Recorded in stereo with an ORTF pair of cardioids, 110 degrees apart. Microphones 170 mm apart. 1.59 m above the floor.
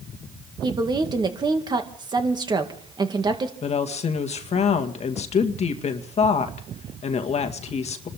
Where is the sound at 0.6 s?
25° right, 2 m.